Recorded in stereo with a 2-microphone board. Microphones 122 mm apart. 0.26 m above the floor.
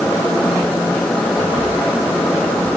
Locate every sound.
Only background noise.